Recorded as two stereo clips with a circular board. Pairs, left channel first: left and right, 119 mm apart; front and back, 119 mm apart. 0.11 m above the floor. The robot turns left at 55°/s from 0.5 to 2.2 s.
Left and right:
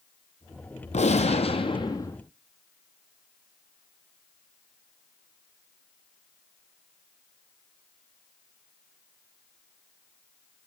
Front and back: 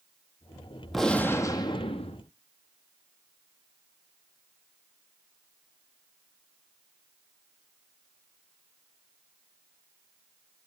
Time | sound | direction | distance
0.9 | a gunshot | 90° left | 0.8 m